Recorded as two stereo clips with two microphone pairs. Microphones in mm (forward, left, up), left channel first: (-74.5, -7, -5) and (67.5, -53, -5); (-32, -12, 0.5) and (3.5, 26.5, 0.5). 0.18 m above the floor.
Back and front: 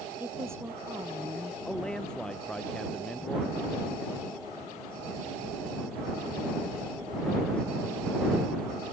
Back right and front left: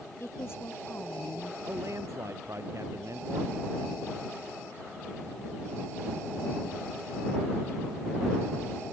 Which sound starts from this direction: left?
A man speaking, at 1.6 s.